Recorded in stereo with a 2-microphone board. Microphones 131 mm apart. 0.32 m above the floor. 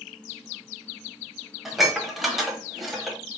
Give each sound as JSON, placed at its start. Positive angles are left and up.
{"t": 1.6, "sound": "dishes clattering", "side_deg": 0, "distance_m": 0.9}